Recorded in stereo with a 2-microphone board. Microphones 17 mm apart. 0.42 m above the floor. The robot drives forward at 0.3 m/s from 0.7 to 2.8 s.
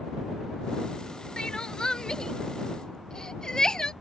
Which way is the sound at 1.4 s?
60° left (ahead or behind).